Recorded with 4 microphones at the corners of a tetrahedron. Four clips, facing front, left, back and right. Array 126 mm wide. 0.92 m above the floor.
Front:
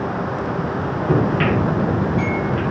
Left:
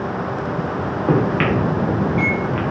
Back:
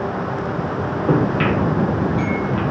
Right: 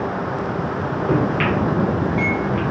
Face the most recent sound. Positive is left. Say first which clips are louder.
# left 2 dB, even
turn(degrees=110)